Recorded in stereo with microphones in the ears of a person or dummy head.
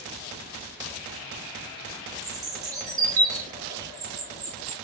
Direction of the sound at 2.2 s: 20° right (ahead or behind).